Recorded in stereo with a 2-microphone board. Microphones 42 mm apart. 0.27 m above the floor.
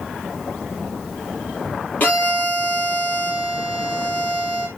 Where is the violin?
40° left (ahead or behind), 4.5 m.